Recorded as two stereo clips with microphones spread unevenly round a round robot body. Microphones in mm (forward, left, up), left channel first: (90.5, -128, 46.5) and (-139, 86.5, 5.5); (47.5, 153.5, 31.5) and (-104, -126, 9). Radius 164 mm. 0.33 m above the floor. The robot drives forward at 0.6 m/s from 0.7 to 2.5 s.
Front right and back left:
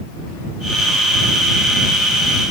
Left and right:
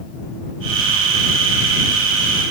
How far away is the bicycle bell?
I don't hear a bicycle bell.